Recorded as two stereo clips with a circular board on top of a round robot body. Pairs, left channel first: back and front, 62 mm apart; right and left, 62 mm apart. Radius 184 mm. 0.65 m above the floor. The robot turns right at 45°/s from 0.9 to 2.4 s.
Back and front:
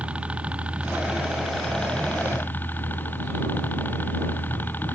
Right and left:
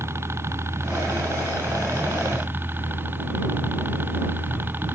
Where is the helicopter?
65° left; by 5.0 s 130° left.